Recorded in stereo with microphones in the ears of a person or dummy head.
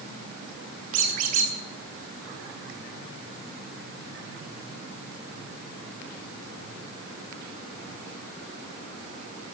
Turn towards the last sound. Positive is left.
turn(degrees=-45)  # may be behind; listen again after turning